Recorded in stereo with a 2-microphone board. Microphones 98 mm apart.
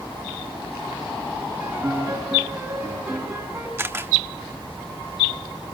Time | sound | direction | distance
1.6 | a piano | 15° right (ahead or behind) | 6.5 m
3.8 | a camera shutter | 25° right (ahead or behind) | 1.0 m